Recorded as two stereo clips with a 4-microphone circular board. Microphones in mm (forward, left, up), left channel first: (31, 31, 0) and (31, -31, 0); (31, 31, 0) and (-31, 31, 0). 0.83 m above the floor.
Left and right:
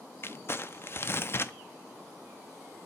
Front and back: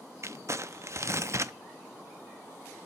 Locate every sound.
0.2 s crumpling: 135° left, 0.6 m